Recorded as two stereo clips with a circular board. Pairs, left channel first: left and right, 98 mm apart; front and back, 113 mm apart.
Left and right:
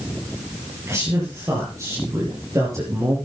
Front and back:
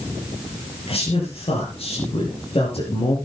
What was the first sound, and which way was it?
A man speaking, 30° right.